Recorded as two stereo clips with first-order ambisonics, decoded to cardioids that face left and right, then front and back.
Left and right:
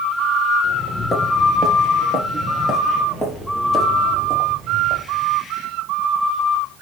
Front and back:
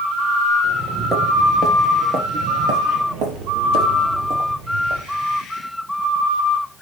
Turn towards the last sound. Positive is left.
turn(degrees=175)